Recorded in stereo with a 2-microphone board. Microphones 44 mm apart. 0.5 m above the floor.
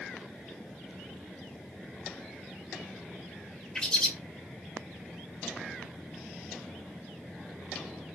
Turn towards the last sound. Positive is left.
turn(degrees=15)  # may be behind; listen again after turning